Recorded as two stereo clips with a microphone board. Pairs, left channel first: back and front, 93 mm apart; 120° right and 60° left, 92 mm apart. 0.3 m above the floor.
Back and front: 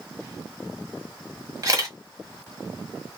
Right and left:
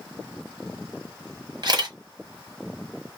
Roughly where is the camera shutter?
Ahead left.